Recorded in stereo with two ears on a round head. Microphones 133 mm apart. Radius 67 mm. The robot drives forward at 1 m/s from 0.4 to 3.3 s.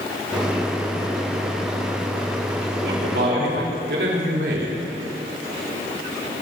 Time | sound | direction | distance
2.8 | a man speaking | 85° right | 4 m